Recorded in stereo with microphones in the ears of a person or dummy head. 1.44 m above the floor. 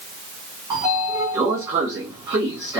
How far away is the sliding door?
About 1.3 m.